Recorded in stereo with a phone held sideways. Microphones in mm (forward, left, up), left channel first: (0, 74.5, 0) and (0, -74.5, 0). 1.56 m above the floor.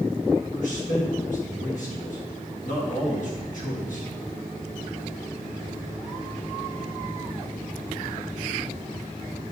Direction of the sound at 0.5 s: 60° left (ahead or behind).